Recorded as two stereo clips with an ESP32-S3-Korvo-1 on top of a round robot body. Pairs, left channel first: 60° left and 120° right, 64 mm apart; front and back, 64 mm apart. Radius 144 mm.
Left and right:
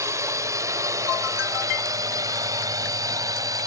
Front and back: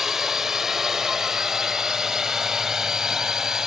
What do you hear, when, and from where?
0.0 s a drone: 95° right; by 3.7 s 100° right